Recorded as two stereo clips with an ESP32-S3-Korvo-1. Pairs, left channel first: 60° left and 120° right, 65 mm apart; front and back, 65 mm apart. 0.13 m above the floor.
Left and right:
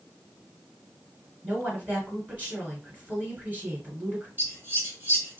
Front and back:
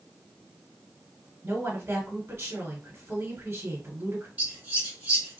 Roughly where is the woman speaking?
Behind.